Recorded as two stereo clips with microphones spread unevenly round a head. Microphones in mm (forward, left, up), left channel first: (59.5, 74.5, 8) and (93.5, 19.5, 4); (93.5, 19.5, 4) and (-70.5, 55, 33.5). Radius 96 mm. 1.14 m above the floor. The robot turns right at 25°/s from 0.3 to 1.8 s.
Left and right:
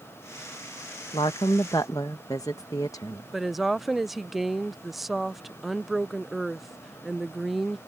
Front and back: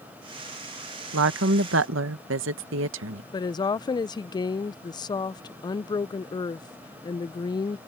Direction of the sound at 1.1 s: 165° left.